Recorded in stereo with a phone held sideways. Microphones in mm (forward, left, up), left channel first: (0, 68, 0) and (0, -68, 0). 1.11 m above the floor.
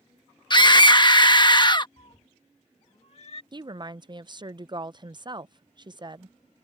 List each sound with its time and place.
0.5 s a scream: 35° left (ahead or behind)
2.0 s a cat meowing: 50° left (ahead or behind)
3.5 s a woman speaking: 35° right (ahead or behind)